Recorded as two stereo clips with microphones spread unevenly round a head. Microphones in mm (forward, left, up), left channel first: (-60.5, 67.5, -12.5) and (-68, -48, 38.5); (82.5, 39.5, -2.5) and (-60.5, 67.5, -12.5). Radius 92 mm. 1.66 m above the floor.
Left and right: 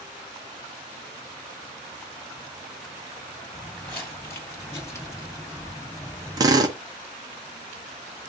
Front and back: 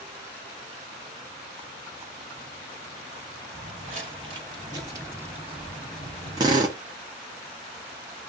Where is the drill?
125° right, 0.8 m.